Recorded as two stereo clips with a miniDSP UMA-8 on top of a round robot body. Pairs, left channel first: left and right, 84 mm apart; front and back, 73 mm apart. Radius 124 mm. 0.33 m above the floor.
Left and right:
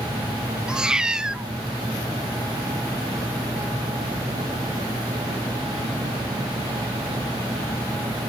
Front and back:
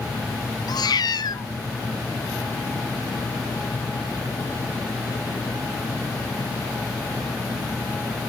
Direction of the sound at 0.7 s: 10° right.